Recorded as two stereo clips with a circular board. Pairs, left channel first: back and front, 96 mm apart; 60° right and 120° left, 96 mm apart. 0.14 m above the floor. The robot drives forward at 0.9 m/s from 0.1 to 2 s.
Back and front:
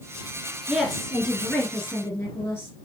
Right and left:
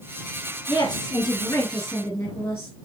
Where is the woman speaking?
80° right, 2 m; by 2.8 s 120° right, 2.5 m.